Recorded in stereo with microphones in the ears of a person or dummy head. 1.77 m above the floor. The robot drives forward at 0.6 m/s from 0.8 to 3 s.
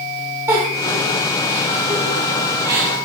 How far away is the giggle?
About 2.5 m.